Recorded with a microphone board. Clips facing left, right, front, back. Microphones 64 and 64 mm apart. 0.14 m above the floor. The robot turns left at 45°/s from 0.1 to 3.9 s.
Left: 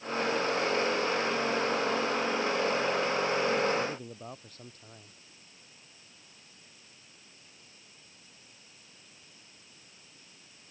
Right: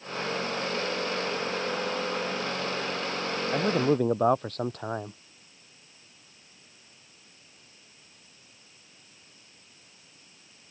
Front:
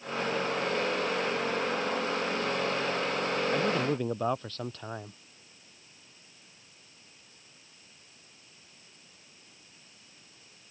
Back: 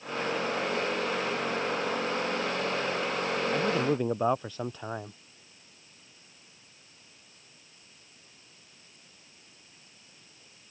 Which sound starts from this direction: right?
A man speaking, at 3.5 s.